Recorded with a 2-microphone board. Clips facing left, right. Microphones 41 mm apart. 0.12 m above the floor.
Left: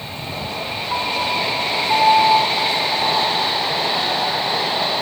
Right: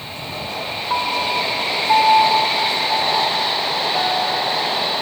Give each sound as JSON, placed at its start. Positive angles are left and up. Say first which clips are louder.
{"t": 0.9, "sound": "a piano", "louder": "right 1 dB", "side_deg": -45, "distance_m": 2.0}